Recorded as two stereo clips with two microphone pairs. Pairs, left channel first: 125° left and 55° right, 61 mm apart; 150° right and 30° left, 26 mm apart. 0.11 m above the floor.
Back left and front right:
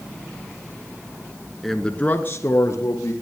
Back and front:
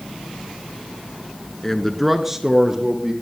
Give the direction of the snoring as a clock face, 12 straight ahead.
No snoring in this recording.